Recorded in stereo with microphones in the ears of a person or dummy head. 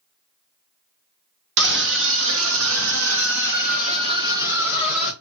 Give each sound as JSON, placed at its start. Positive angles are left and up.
{"t": 1.6, "sound": "a scream", "side_deg": -65, "distance_m": 1.2}